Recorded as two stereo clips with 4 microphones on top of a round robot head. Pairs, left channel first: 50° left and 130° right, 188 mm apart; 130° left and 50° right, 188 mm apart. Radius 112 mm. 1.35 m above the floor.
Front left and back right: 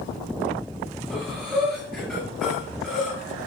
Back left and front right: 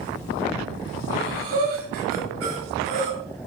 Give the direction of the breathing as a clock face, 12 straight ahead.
1 o'clock.